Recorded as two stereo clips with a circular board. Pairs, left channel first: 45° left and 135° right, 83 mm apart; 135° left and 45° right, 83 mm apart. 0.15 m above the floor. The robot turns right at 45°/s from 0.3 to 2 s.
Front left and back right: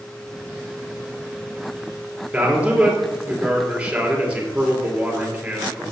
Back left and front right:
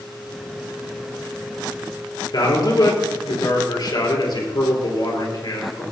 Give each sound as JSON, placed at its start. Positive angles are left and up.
{"t": 2.3, "sound": "a man speaking", "azimuth_deg": 150, "distance_m": 3.5}